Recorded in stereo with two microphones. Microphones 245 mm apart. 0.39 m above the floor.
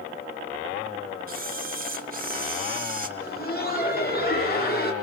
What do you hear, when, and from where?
1.3 s a camera shutter: 35° right (ahead or behind), 2 m
3.2 s laughter: 40° left (ahead or behind), 7 m